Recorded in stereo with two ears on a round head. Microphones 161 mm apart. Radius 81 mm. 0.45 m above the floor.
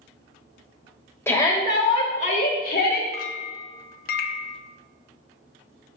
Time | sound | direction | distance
1.3 | a shout | 15° left (ahead or behind) | 1.7 m
3.1 | a clink | 50° left (ahead or behind) | 0.5 m